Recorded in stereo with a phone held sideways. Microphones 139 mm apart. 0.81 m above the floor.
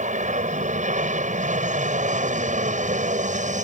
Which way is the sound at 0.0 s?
60° right (ahead or behind).